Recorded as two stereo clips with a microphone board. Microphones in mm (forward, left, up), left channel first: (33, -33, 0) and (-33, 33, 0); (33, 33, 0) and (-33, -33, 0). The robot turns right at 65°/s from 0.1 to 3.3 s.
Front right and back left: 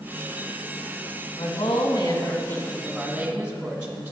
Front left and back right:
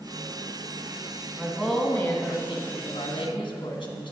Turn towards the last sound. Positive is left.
turn(degrees=60)